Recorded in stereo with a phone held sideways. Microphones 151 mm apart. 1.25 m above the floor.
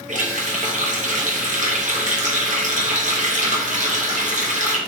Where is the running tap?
55° right (ahead or behind), 0.9 m.